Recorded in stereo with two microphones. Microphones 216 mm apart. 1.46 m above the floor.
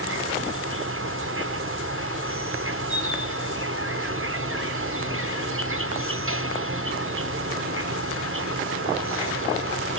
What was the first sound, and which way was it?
An insect, 80° right.